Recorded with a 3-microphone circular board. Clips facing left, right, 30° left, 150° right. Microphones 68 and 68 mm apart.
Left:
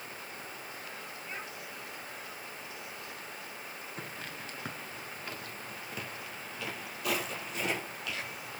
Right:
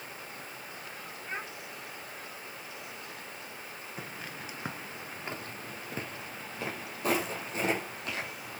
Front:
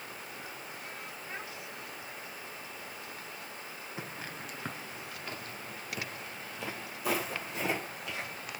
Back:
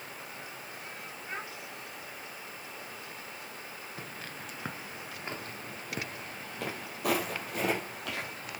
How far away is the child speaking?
About 5 m.